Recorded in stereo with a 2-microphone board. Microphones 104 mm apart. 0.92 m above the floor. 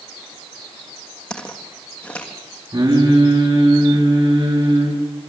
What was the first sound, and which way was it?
Footsteps, 5° left (ahead or behind).